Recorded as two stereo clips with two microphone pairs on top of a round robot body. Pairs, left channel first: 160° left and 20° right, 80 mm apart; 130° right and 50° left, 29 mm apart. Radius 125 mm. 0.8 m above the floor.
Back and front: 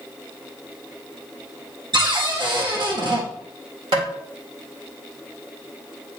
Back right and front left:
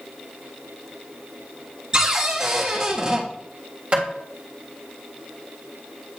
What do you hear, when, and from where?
1.9 s a cupboard door: 15° right, 1.6 m
3.9 s tapping: straight ahead, 1.9 m